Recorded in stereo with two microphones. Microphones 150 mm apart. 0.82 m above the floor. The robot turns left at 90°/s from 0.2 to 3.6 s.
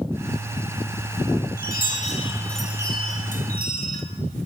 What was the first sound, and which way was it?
A chime, 95° left.